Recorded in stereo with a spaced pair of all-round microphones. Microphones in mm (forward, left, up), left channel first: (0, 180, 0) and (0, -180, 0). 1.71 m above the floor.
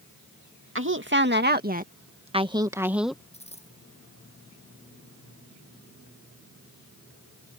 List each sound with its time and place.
0.8 s a woman speaking: 35° right (ahead or behind); by 3.2 s centre (ahead or behind)
3.3 s a dropped coin: 15° left (ahead or behind)